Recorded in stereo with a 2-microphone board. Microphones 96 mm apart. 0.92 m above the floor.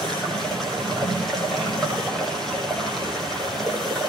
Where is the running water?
5° left (ahead or behind), 8 m.